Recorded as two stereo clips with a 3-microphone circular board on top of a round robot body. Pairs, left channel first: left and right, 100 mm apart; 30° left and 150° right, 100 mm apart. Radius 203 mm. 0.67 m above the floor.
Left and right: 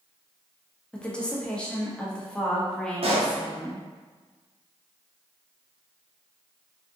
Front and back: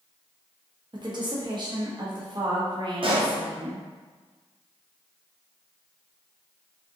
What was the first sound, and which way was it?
A woman speaking, 170° left.